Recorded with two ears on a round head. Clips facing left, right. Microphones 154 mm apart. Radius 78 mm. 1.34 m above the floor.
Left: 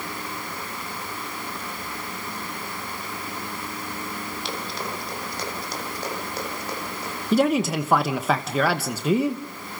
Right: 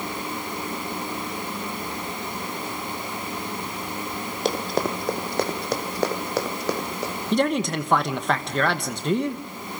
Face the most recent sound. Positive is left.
turn(degrees=5)  # may be behind; listen again after turning